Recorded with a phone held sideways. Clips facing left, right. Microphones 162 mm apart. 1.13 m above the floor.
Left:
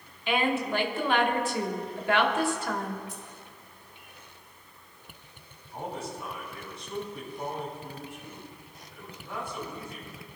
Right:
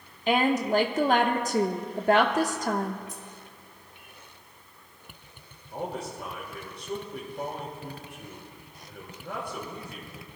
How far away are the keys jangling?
About 2.5 m.